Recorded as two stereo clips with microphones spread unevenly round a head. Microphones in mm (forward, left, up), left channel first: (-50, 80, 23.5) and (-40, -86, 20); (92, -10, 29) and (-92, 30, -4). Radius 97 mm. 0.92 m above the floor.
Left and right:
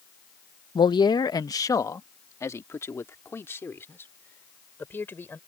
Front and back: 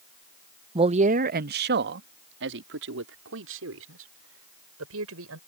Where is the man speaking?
140° left; by 5.4 s 170° left.